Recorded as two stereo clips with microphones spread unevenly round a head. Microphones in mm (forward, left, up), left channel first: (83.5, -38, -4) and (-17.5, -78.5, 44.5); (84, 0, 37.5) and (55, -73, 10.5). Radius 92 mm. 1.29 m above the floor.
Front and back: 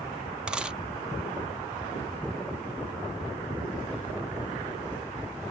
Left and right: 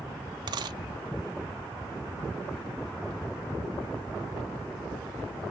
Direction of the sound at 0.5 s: 130° right.